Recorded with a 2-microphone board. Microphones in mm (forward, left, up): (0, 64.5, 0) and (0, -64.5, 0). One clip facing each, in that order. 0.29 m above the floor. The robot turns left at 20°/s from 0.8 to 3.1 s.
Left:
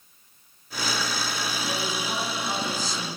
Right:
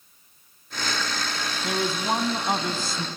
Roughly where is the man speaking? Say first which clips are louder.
Right 8 dB; right.